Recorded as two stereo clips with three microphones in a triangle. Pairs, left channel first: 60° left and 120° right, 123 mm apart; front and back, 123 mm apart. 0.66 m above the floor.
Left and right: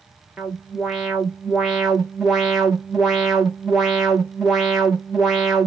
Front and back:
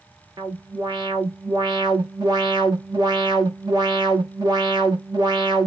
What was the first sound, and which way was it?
An alarm, 150° left.